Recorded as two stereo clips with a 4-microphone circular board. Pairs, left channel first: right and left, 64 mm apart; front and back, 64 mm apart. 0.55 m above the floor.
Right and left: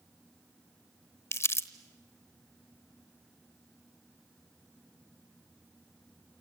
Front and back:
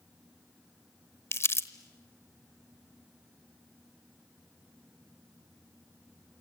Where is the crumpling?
45° right, 0.9 m.